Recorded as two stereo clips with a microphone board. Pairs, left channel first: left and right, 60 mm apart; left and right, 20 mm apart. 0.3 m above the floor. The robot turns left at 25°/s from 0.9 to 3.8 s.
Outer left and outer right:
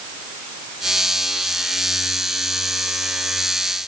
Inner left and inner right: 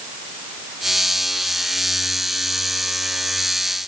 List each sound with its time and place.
Only background noise.